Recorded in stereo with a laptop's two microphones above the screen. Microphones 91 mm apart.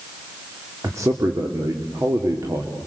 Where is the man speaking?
35° right (ahead or behind), 2.5 m.